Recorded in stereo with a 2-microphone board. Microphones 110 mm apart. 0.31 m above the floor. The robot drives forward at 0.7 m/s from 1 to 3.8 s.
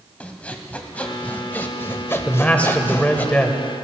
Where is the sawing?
15° left (ahead or behind), 1.2 m.